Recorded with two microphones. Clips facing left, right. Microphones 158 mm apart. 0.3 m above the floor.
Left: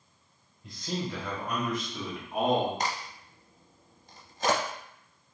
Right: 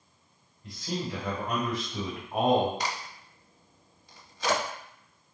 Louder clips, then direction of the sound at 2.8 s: Left 1 dB; 45° left (ahead or behind).